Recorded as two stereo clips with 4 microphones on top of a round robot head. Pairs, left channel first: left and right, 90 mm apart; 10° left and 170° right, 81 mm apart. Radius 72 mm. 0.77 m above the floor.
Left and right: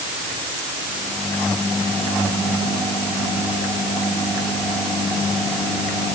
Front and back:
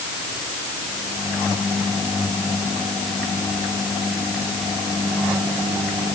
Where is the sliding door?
No sliding door in this recording.